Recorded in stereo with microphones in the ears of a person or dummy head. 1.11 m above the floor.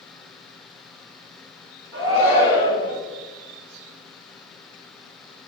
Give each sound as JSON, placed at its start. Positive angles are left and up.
{"t": 1.9, "sound": "a shout", "side_deg": -10, "distance_m": 1.5}